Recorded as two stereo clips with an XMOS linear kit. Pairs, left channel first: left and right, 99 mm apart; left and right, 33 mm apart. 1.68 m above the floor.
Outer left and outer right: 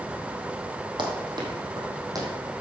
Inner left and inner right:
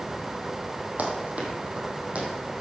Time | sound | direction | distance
1.0 | running footsteps | 50° right (ahead or behind) | 3 m